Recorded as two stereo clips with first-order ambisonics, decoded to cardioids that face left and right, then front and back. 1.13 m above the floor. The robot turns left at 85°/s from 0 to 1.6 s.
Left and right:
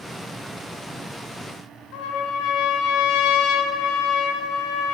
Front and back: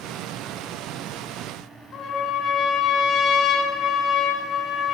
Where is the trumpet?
60° left, 4 m.